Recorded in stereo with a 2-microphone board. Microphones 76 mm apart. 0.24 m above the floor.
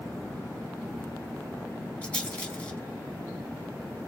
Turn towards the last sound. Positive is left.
turn(degrees=15)  # may be behind; listen again after turning